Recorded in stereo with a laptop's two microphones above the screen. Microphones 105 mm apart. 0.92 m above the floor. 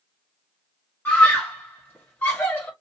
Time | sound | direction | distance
1.1 | a scream | 15° left (ahead or behind) | 1.7 m